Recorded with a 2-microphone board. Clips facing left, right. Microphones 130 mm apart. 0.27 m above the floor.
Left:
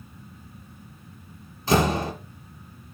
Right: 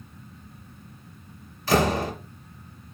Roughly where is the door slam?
Left.